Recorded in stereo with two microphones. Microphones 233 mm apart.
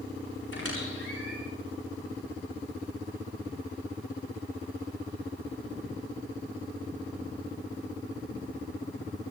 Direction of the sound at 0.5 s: 65° left (ahead or behind).